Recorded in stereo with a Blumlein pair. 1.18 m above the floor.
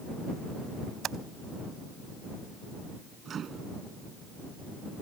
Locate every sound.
1.0 s typing on a keyboard: 25° right
3.2 s a microwave: 25° right